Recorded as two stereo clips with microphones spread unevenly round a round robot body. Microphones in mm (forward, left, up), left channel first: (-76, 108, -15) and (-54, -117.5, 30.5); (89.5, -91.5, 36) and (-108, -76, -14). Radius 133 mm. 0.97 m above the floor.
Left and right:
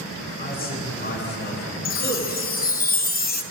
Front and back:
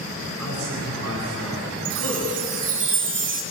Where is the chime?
145° left, 1.3 m.